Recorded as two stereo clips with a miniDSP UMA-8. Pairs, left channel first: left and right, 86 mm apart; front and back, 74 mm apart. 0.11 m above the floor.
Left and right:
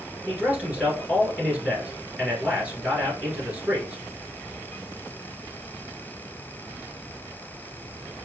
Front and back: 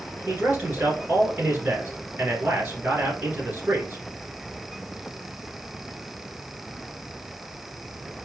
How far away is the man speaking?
About 1.5 m.